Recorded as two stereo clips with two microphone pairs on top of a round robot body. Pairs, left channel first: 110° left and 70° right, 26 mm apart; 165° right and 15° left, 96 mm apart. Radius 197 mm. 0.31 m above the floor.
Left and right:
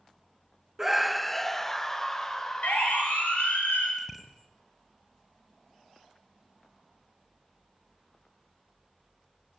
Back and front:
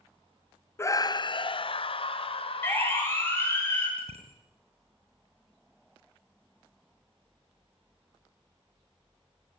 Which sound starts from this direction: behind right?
A scream, at 0.8 s.